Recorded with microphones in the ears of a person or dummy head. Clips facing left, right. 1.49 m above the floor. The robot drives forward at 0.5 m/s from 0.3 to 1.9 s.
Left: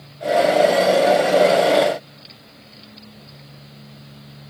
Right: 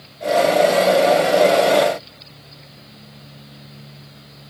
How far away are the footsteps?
I don't hear footsteps.